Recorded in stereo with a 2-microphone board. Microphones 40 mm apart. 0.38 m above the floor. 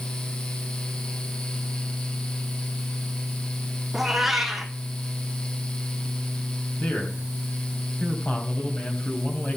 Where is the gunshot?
I don't hear a gunshot.